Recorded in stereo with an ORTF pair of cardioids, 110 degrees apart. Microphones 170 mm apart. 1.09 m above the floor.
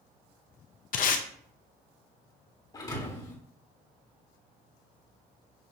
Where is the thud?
25° left, 1.5 m.